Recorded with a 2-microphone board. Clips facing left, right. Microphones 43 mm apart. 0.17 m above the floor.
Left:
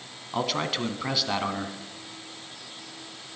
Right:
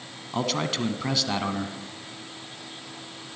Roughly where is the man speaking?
Centre.